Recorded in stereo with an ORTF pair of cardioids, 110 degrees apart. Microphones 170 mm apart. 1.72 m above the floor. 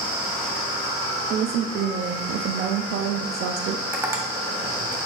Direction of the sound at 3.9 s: 15° right.